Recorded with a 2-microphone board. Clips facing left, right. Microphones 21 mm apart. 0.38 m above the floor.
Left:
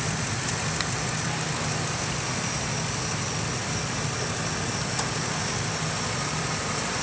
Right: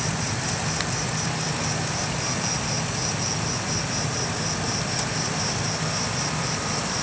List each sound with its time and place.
0.0 s an insect: 55° right (ahead or behind), 2 m